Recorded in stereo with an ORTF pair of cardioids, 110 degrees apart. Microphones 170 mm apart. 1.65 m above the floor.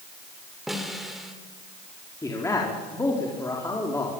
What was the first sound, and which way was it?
A snare drum, straight ahead.